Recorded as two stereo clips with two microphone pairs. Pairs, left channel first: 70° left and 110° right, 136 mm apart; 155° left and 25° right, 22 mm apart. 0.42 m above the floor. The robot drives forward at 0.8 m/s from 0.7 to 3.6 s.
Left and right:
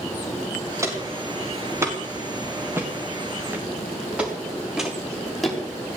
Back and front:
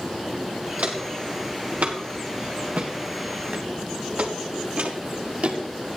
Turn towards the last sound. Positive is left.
turn(degrees=-20)